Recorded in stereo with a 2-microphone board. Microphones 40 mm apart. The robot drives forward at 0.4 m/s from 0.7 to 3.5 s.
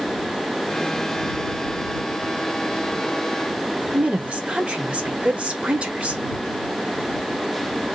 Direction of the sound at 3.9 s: 30° right (ahead or behind).